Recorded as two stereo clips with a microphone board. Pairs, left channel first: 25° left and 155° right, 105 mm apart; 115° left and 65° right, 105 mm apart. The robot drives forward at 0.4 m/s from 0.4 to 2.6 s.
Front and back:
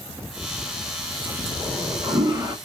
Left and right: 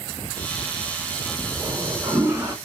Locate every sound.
1.6 s a toilet flushing: 105° right, 1.1 m; by 2.5 s 130° right, 1.2 m